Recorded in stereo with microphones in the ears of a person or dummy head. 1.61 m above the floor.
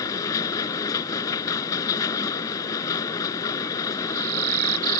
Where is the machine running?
10° left (ahead or behind).